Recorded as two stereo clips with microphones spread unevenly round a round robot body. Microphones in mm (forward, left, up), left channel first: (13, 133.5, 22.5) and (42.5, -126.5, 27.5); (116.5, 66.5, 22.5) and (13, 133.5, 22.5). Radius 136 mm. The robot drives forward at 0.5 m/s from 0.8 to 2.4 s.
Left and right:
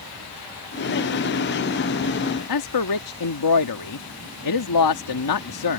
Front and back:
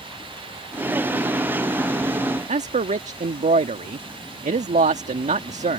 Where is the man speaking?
120° left.